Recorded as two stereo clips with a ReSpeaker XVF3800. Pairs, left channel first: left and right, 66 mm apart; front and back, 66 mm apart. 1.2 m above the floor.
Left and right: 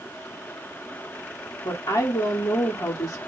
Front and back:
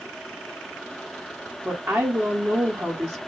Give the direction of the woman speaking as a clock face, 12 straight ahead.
8 o'clock.